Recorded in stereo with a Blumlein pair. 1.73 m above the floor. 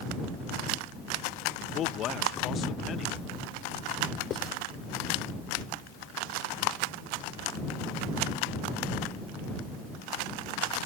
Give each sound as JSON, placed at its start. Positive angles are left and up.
{"t": 1.6, "sound": "a man speaking", "azimuth_deg": 30}
{"t": 4.3, "sound": "writing", "azimuth_deg": 30}